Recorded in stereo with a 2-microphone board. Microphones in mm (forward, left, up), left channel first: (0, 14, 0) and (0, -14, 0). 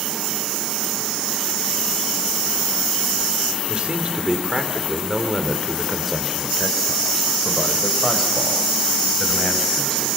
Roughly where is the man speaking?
Right.